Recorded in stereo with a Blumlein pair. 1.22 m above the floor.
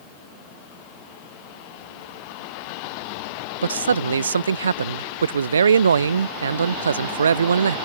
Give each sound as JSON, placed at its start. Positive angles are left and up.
{"t": 3.6, "sound": "a man speaking", "azimuth_deg": -70}